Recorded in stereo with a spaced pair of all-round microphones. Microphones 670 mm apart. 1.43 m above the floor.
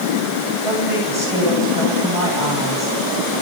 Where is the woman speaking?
45° right (ahead or behind), 9.5 m.